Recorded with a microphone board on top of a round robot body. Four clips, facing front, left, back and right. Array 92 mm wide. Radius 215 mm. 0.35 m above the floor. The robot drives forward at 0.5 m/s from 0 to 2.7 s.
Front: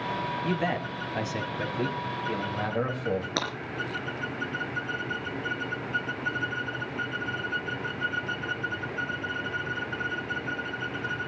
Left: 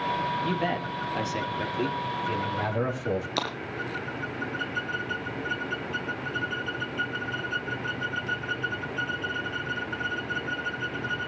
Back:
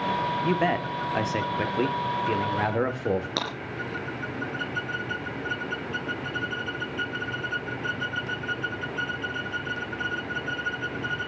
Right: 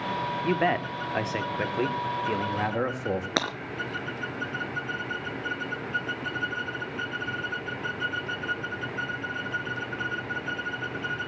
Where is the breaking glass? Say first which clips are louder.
Right 2 dB, even; 90° right, 4.5 m.